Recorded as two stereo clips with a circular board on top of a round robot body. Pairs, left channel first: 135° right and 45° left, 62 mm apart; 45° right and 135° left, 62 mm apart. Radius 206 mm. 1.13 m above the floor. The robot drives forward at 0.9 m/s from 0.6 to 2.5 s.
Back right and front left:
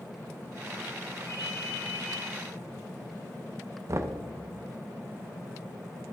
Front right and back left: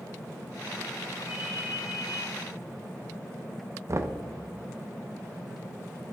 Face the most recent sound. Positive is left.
turn(degrees=90)